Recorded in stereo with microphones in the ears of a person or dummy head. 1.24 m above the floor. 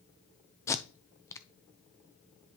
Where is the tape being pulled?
20° left (ahead or behind), 0.6 m.